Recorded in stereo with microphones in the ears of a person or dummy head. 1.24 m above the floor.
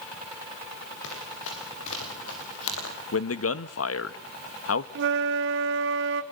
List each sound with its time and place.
1.0 s running footsteps: 75° left (ahead or behind), 7.5 m; by 3.0 s 80° left, 6.5 m
3.1 s a man speaking: 85° left, 1.6 m
5.0 s a flute: 65° right (ahead or behind), 1.5 m